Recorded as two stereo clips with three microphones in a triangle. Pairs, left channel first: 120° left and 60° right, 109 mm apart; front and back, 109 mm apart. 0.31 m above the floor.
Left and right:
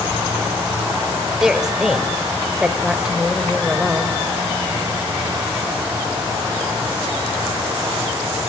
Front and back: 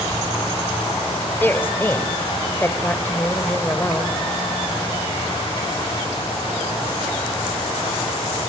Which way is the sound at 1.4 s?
15° left.